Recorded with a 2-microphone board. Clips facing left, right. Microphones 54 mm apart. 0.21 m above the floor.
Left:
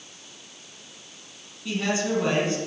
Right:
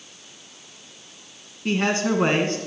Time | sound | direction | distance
1.6 | a man speaking | 55° right (ahead or behind) | 2 m